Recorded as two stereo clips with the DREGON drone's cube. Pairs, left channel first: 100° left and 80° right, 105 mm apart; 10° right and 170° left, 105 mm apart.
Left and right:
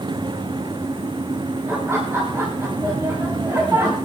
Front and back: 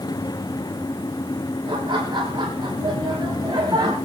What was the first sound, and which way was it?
Laughter, 145° right.